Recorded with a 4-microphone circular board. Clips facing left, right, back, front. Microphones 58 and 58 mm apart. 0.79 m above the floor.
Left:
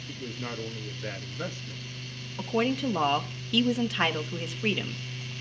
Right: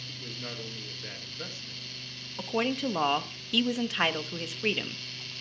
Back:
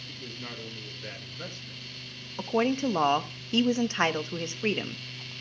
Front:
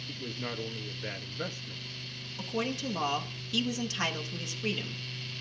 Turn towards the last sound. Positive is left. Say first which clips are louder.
# left 2 dB, back 8 dB
turn(degrees=180)